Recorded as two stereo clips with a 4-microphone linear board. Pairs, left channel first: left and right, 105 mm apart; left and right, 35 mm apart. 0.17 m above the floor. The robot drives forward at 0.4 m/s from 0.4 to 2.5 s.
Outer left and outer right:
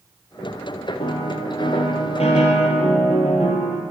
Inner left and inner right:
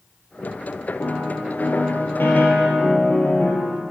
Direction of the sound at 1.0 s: 60° left (ahead or behind).